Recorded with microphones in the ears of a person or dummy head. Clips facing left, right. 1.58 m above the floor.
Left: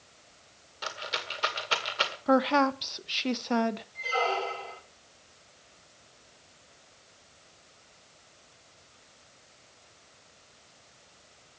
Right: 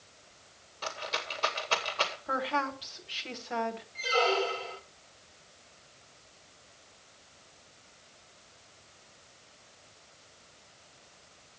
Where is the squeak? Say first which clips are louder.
Right 5 dB; 20° right (ahead or behind), 1.0 m.